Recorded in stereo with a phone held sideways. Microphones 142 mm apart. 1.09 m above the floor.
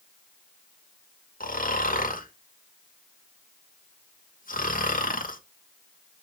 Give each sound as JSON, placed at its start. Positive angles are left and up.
{"t": 1.4, "sound": "snoring", "side_deg": 80, "distance_m": 1.5}